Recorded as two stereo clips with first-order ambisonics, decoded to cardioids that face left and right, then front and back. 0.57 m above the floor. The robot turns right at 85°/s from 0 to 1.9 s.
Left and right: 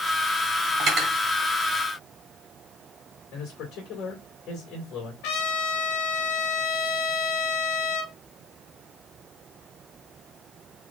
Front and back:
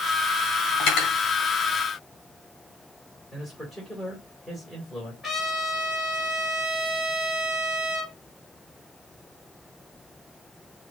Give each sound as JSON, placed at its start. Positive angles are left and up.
{"t": 0.8, "sound": "cutlery clinking", "azimuth_deg": -40, "distance_m": 2.5}
{"t": 3.3, "sound": "a man speaking", "azimuth_deg": 80, "distance_m": 2.0}
{"t": 5.2, "sound": "a trumpet", "azimuth_deg": 80, "distance_m": 2.0}